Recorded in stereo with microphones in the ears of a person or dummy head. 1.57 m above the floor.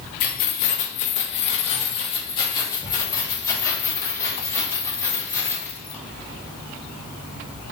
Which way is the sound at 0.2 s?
45° left (ahead or behind).